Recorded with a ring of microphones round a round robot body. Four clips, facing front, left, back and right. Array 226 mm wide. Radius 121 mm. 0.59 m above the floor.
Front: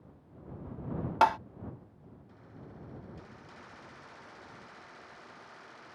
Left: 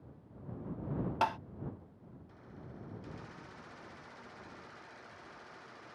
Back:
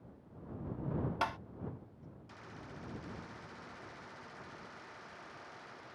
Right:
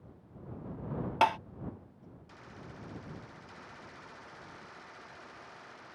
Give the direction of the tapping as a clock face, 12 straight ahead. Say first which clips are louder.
Right 6 dB, front 15 dB; 1 o'clock.